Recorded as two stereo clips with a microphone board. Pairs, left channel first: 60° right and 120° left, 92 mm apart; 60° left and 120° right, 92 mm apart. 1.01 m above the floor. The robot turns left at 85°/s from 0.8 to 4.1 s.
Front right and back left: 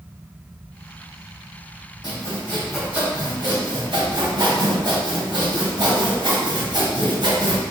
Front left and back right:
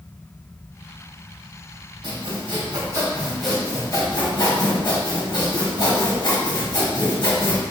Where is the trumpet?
I don't hear a trumpet.